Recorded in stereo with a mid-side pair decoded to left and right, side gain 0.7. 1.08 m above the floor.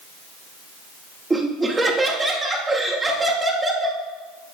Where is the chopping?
No chopping in this recording.